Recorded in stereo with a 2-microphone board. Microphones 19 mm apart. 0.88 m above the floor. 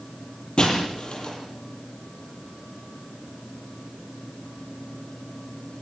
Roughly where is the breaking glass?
Left.